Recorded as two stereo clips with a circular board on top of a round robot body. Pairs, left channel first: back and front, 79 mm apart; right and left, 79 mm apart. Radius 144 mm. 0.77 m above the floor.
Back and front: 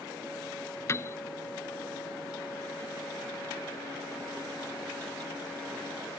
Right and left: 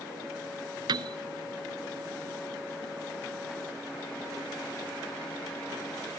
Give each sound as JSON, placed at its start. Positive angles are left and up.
{"t": 0.9, "sound": "a piano", "azimuth_deg": 120}